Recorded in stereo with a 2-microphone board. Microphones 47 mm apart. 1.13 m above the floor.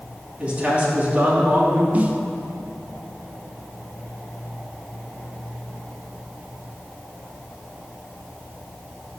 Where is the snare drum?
30° right (ahead or behind), 0.7 m.